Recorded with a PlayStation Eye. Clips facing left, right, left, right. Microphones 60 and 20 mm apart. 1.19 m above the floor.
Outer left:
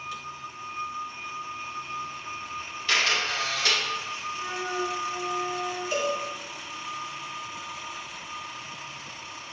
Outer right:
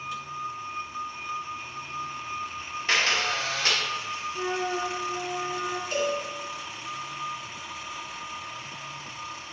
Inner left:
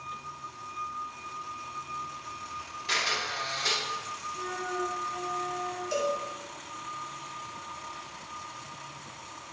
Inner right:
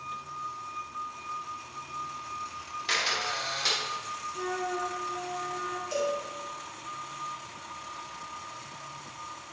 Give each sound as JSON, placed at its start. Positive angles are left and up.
{"t": 2.9, "sound": "a camera shutter", "side_deg": -30, "distance_m": 2.5}
{"t": 4.3, "sound": "a flute", "side_deg": -45, "distance_m": 0.9}
{"t": 5.9, "sound": "a cowbell", "side_deg": 10, "distance_m": 2.0}